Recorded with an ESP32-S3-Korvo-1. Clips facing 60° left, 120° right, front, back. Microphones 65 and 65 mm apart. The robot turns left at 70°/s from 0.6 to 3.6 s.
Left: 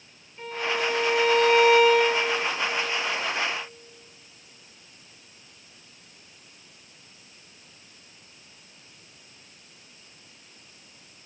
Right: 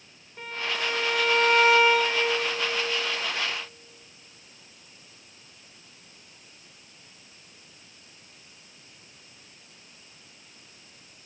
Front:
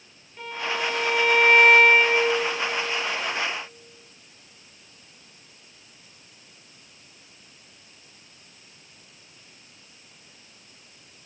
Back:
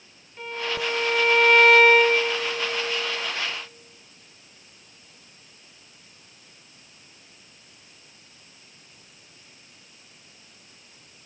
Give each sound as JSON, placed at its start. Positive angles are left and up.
{"t": 0.4, "sound": "a violin", "azimuth_deg": -95, "distance_m": 4.0}